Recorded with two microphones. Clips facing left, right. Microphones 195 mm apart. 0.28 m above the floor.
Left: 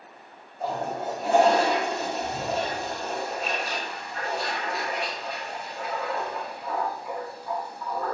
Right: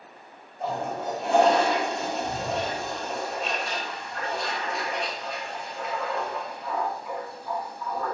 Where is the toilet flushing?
5° left (ahead or behind), 1.7 m.